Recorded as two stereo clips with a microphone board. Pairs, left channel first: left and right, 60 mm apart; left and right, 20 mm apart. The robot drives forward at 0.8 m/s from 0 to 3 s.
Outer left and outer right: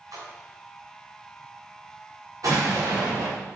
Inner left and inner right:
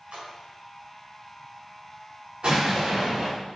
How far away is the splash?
About 4 m.